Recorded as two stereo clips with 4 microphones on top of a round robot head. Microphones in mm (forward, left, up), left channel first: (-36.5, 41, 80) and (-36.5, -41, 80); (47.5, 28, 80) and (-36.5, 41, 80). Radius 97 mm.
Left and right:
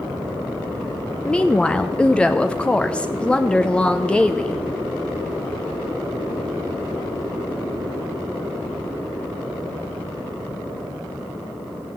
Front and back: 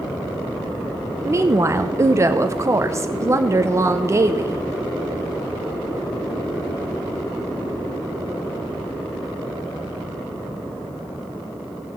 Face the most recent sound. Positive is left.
turn(degrees=160)